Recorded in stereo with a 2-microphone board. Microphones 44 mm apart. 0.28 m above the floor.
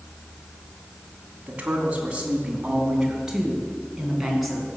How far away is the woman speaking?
About 2.5 m.